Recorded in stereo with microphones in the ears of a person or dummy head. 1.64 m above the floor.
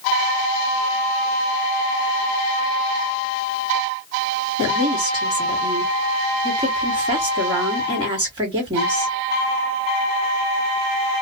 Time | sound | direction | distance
4.6 | a woman speaking | 25° right (ahead or behind) | 1.2 m